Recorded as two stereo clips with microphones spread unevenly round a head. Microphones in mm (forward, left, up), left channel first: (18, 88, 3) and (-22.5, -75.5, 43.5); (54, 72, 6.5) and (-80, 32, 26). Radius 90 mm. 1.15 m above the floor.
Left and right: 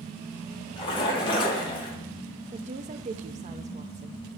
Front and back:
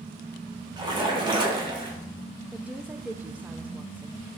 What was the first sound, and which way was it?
A splash, 140° left.